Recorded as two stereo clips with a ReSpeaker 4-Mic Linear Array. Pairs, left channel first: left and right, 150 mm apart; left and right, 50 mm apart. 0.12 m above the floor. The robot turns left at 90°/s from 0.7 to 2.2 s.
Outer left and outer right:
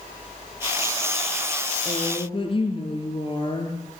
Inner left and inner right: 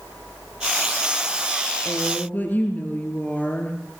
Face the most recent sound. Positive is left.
turn(degrees=50)